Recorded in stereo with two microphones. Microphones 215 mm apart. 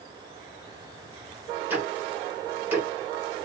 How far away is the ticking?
About 1.6 m.